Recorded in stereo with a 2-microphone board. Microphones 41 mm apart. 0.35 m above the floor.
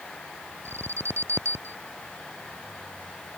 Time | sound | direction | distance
0.7 | an alarm | 80° right | ?